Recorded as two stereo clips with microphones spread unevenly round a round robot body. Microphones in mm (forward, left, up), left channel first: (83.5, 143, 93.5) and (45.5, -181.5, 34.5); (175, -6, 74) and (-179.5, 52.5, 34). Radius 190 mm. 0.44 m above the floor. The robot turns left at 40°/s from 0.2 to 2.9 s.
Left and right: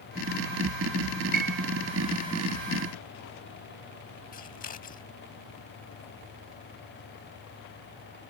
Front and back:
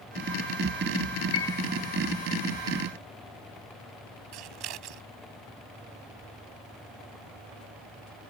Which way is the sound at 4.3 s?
155° left.